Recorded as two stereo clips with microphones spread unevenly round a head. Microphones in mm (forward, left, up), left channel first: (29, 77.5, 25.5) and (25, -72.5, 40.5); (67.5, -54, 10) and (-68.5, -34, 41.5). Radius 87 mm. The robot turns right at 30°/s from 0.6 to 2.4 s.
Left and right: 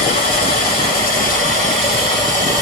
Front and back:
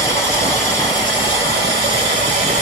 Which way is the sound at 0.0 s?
110° left.